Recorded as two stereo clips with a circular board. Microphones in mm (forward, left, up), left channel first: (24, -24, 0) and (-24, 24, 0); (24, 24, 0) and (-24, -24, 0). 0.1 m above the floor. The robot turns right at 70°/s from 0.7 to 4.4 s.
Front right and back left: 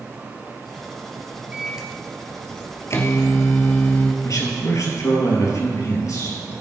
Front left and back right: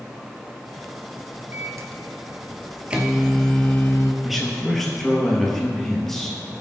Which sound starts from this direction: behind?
A microwave, at 1.5 s.